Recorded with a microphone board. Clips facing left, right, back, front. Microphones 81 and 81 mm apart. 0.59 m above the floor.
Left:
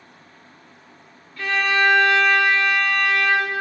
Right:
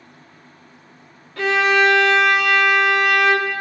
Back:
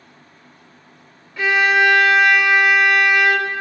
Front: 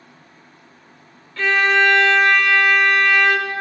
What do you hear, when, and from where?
1.4 s a violin: 100° right, 0.7 m